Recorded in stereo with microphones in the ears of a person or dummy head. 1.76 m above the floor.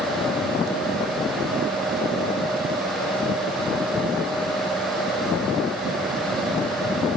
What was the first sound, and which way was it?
Only background noise.